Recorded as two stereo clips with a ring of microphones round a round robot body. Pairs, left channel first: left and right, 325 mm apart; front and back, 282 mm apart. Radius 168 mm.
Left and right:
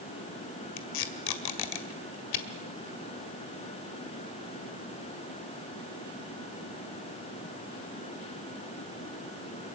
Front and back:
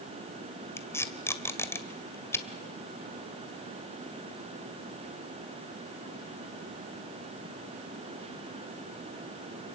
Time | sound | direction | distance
0.8 | tape being pulled | 80° left | 1.9 m